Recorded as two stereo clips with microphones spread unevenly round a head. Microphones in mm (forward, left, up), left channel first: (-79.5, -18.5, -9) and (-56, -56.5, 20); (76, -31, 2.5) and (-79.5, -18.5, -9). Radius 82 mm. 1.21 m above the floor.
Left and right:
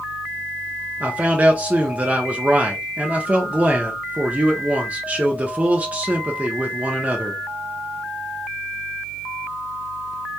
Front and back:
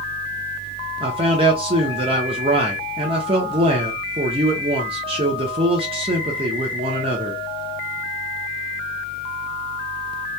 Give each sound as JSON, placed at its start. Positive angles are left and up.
{"t": 1.0, "sound": "a man speaking", "azimuth_deg": -145, "distance_m": 0.6}